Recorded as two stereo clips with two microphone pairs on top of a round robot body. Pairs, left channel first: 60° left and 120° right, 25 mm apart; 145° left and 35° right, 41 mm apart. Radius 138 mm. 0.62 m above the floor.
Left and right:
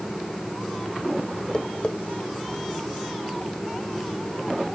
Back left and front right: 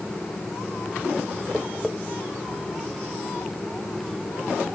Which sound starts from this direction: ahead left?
Tapping, at 1.5 s.